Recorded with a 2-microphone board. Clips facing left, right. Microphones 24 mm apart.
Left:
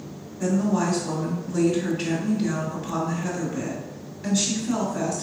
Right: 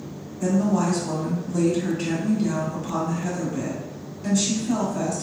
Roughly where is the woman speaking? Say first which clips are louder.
Right 1 dB; left.